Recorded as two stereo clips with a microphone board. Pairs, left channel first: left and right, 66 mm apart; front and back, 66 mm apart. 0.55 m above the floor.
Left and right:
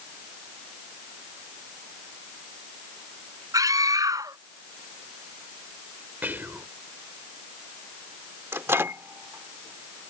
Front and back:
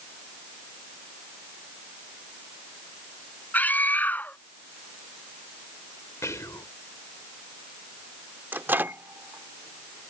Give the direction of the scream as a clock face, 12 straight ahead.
2 o'clock.